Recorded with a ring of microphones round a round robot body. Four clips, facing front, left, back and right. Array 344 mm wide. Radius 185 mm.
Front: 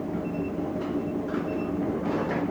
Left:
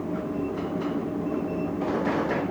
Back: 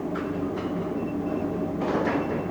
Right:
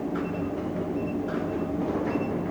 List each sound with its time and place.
Only background noise.